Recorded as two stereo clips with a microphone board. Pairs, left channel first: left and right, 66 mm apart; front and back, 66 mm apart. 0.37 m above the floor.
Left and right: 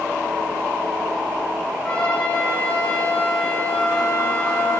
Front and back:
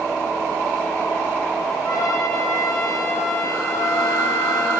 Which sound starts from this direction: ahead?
A trumpet, at 1.8 s.